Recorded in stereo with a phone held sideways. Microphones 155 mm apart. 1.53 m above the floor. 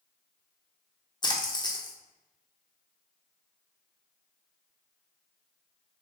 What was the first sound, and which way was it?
A splash, 30° left (ahead or behind).